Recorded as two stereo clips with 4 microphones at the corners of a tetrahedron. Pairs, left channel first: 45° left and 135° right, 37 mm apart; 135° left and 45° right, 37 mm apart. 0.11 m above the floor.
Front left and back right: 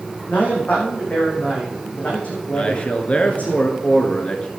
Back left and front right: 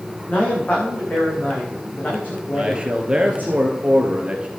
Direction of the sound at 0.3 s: 95° left.